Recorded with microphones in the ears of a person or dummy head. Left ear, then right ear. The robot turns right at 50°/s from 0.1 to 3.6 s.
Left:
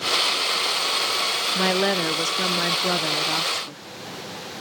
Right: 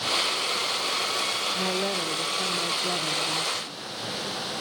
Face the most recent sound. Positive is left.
turn(degrees=155)